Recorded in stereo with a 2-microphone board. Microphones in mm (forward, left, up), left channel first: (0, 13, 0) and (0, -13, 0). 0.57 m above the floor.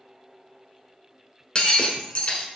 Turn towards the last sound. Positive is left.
turn(degrees=45)  # may be behind; listen again after turning